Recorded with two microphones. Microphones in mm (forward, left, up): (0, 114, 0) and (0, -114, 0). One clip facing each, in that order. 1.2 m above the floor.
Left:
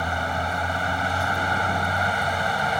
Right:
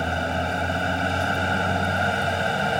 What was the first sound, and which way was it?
A vehicle, 25° right (ahead or behind).